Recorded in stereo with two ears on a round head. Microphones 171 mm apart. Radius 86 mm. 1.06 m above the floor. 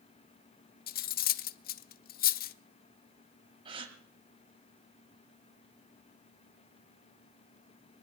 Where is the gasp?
25° right (ahead or behind), 1.5 m.